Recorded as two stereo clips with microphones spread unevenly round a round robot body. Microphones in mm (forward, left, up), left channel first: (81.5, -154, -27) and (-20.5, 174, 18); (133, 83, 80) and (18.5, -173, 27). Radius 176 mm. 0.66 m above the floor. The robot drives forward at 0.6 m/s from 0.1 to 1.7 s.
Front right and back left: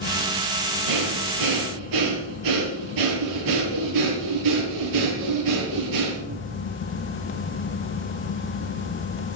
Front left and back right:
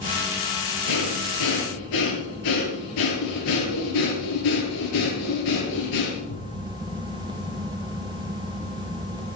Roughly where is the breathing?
Left.